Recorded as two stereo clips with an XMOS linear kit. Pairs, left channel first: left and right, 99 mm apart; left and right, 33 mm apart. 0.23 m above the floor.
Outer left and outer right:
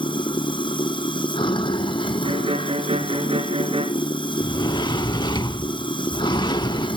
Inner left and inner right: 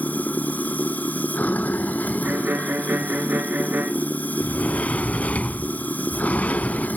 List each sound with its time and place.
0.0 s running water: 55° left (ahead or behind), 1.2 m
2.2 s a violin: 75° right (ahead or behind), 1.4 m
4.4 s a sliding door: 50° left (ahead or behind), 0.6 m